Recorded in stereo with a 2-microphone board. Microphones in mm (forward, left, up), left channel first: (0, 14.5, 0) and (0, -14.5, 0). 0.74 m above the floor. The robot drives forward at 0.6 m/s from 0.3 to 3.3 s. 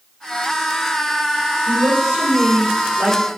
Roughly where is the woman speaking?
Right.